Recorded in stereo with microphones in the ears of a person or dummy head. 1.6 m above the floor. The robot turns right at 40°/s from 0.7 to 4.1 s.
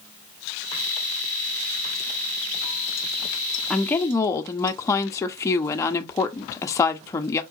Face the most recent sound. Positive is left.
turn(degrees=15)  # may be behind; listen again after turning